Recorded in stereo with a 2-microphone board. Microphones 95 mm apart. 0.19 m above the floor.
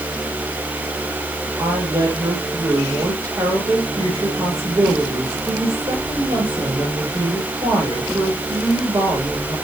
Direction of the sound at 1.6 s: 40° right (ahead or behind).